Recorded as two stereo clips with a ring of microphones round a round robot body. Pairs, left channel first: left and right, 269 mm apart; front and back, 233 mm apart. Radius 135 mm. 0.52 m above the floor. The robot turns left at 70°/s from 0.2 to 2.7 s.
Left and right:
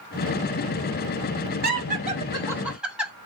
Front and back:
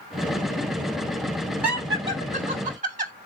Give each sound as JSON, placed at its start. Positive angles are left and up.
{"t": 1.6, "sound": "laughter", "azimuth_deg": -100, "distance_m": 1.4}